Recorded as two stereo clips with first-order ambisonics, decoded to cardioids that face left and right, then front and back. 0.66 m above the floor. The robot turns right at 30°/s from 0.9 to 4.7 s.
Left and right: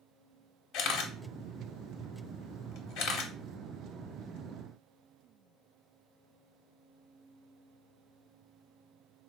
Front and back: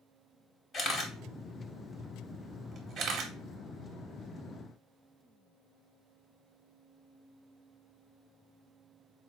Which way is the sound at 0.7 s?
55° left.